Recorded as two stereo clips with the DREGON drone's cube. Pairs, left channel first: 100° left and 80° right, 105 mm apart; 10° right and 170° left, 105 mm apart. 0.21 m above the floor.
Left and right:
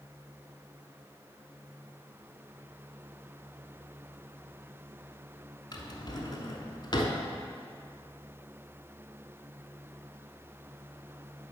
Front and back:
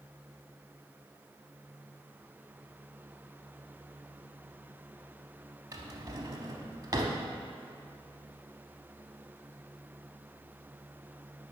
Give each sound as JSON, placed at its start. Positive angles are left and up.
{"t": 5.7, "sound": "a drawer", "azimuth_deg": 130, "distance_m": 0.7}